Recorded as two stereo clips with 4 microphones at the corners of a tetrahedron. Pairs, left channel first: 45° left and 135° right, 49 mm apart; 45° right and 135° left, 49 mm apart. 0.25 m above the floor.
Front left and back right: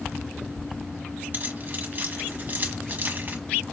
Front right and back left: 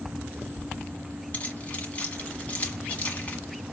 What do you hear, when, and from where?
1.3 s keys jangling: 95° right, 1.4 m